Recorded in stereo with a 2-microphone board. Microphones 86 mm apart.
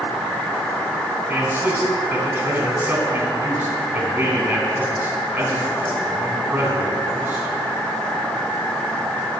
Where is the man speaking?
25° right (ahead or behind), 3 m.